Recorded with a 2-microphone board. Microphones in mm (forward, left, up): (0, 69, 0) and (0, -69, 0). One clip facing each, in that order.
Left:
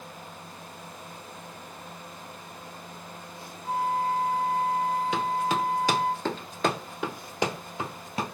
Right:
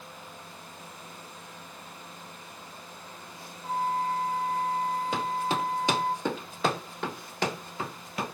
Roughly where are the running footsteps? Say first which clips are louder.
Left 2 dB; right.